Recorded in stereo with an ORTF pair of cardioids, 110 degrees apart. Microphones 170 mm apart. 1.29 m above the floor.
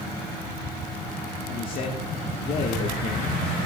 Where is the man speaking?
55° left, 2.0 m.